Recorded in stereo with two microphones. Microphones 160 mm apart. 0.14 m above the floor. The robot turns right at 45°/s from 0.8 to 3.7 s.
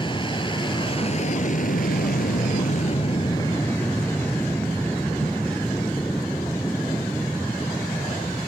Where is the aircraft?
35° left; by 8.5 s 165° left.